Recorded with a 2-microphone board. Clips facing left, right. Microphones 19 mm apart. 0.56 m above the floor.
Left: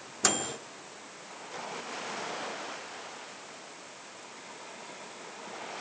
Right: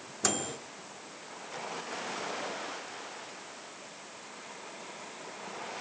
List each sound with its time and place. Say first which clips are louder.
0.2 s a microwave: left 3 dB; 20° left (ahead or behind), 1.3 m